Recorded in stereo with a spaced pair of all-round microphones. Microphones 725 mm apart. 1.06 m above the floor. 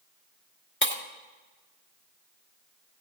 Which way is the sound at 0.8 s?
15° left (ahead or behind).